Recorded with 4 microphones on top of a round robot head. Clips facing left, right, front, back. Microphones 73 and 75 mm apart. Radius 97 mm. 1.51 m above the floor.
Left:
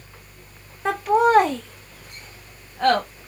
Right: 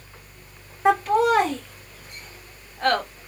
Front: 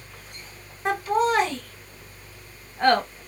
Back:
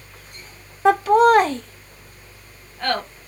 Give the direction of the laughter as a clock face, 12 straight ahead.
6 o'clock.